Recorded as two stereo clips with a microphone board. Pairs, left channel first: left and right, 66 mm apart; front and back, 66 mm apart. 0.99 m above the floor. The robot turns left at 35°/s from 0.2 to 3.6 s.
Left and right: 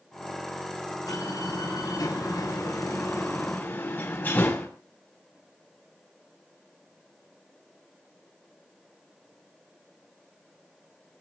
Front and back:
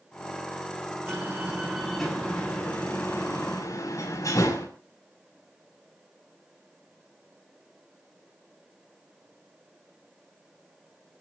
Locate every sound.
1.1 s a door slam: 120° left, 6.5 m; by 4.7 s 35° left, 6.5 m